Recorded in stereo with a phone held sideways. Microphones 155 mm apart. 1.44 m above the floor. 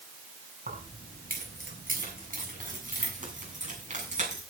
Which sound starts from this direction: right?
Keys jangling, at 0.7 s.